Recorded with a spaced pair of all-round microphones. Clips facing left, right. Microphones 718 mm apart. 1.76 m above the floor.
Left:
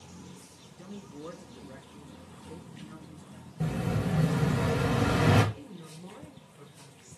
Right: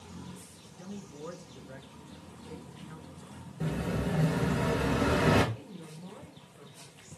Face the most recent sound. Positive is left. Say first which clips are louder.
# left 1 dB
turn(degrees=5)  # may be behind; listen again after turning